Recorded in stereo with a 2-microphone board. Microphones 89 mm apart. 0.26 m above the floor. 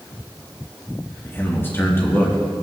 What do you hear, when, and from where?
1.2 s a man speaking: 25° left (ahead or behind), 3.5 m